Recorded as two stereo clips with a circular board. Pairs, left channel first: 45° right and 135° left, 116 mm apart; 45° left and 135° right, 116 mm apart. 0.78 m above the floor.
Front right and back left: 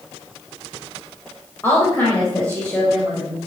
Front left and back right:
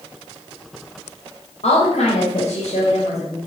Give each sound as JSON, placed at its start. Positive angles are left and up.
{"t": 1.6, "sound": "a woman speaking", "azimuth_deg": 25, "distance_m": 3.0}